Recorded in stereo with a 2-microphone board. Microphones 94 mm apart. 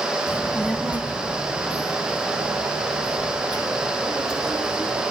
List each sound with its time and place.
0.3 s a child speaking: 30° left (ahead or behind), 0.6 m; by 5.0 s 45° right (ahead or behind), 4 m